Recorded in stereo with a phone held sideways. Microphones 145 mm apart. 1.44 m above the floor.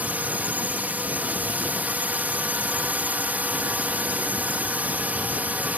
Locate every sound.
0.0 s a drone: 10° right (ahead or behind)